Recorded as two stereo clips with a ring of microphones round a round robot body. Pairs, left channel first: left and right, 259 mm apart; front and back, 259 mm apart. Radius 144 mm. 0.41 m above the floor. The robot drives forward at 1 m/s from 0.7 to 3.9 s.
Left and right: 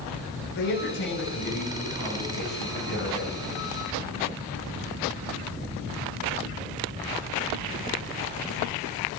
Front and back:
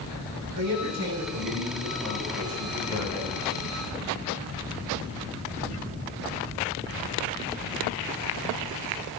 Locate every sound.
0.5 s a man speaking: 140° left, 6 m; by 3.8 s 155° left, 8.5 m